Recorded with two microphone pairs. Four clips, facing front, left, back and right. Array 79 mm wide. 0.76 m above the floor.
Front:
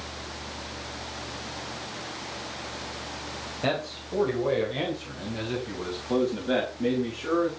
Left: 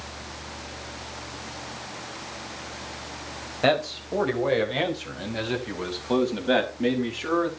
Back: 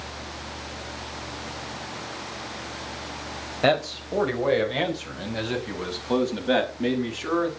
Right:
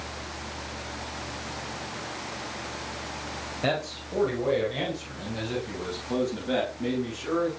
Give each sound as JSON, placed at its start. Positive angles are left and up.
{"t": 3.6, "sound": "a man speaking", "azimuth_deg": 145, "distance_m": 4.0}